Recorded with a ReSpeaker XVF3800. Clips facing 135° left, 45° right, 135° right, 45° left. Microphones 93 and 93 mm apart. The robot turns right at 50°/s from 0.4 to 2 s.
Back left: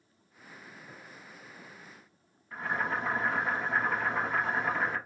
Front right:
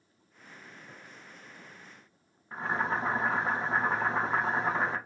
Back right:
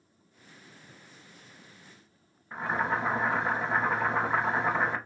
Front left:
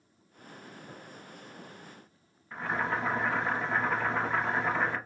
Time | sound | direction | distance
2.5 | boiling | 80° right | 0.7 m